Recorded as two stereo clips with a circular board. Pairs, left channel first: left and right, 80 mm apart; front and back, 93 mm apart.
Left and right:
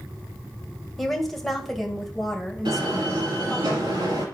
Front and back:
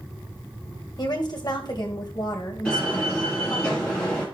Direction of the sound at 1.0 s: 5° left.